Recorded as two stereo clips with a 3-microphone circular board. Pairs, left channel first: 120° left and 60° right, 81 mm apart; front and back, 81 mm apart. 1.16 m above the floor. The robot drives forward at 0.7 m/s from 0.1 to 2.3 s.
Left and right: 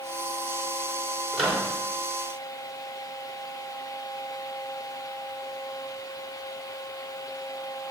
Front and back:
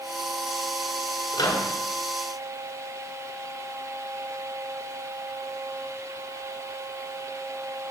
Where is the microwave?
25° left, 2 m; by 1.7 s 30° left, 1.9 m.